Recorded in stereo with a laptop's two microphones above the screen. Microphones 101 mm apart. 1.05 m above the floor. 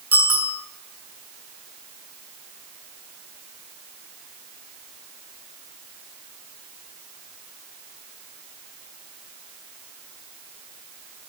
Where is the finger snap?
No finger snap in this recording.